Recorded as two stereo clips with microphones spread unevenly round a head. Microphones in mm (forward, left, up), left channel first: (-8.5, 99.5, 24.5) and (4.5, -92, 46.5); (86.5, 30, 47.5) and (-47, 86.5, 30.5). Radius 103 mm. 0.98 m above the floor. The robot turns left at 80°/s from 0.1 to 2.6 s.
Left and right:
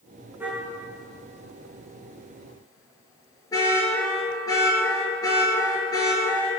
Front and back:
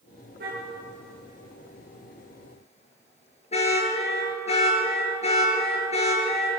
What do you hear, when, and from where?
0.4 s a car horn: 165° right, 7 m; by 6.5 s 20° left, 7 m